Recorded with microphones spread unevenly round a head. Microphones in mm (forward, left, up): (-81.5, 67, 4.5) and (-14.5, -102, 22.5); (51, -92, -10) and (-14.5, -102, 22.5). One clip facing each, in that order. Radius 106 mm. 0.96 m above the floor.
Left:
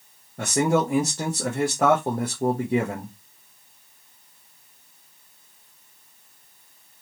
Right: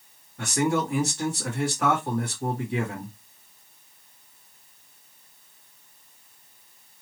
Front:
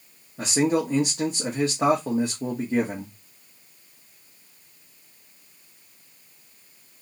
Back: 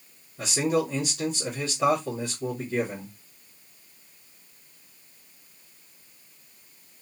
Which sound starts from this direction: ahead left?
A man speaking, at 0.4 s.